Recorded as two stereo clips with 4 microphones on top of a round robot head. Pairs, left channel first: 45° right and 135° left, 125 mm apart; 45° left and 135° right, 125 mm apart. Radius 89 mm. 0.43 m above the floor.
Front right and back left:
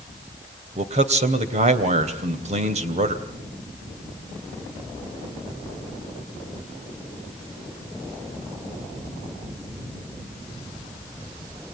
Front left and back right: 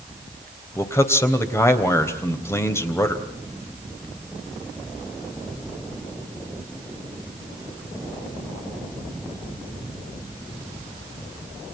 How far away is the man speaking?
About 3 m.